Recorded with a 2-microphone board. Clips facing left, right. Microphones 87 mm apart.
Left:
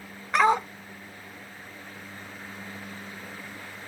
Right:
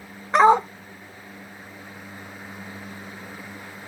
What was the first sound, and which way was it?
A dog barking, 30° right (ahead or behind).